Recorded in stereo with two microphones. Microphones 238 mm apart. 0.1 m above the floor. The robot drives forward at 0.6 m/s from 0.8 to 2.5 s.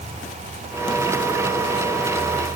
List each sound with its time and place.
Only background noise.